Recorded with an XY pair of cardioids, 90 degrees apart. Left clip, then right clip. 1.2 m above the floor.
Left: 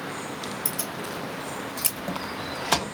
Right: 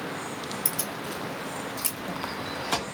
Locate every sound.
0.7 s keys jangling: 20° right, 1.1 m; by 2.8 s 75° left, 1.2 m